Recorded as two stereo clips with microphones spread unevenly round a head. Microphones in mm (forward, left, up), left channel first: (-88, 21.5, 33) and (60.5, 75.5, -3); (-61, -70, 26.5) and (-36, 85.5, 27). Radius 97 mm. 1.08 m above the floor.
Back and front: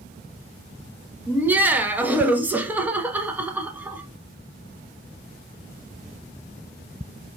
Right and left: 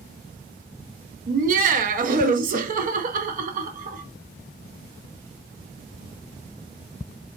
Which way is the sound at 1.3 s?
90° left.